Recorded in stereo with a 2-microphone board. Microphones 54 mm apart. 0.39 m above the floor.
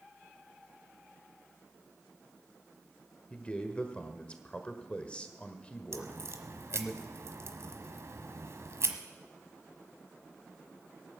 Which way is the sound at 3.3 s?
20° left (ahead or behind).